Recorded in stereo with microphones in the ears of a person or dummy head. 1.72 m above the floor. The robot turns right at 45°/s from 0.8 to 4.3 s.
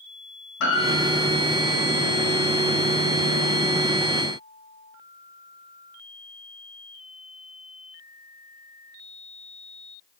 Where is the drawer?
I don't hear a drawer.